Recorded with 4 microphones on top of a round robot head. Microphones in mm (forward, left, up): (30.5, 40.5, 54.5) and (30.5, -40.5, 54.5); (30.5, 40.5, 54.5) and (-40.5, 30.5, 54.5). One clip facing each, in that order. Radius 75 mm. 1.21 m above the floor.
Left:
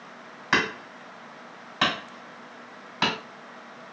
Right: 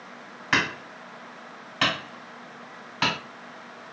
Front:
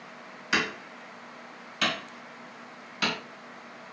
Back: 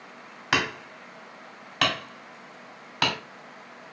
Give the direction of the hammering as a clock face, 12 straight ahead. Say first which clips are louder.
Left 1 dB, back 2 dB; 6 o'clock.